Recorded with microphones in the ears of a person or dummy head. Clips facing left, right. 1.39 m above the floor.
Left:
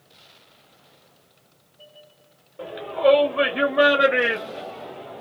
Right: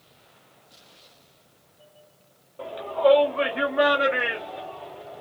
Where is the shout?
15° left (ahead or behind), 1.1 m; by 5.2 s 75° left (ahead or behind), 1.5 m.